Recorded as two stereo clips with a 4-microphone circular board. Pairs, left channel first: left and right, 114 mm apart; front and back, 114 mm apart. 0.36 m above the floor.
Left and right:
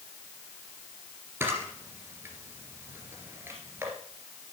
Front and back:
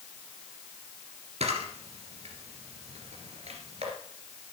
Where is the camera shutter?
160° right, 2.5 m.